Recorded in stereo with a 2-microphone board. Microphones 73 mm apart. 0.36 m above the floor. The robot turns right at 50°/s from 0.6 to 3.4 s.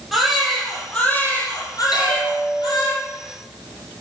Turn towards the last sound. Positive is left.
turn(degrees=175)